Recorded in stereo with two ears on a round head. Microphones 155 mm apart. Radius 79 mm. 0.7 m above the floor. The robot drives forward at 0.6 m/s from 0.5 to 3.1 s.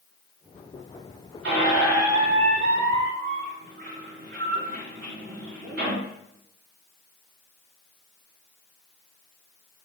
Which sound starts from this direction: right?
A squeak, at 1.4 s.